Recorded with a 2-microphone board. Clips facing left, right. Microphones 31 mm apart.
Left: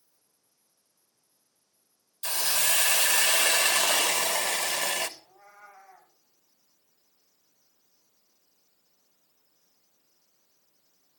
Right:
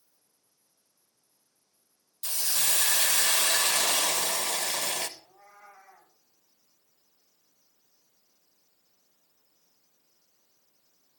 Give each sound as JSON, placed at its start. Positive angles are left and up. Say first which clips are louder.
{"t": 2.2, "sound": "a hiss", "louder": "left 3 dB", "side_deg": 70, "distance_m": 0.7}
{"t": 5.2, "sound": "a cat meowing", "louder": "left 1 dB", "side_deg": 0, "distance_m": 9.5}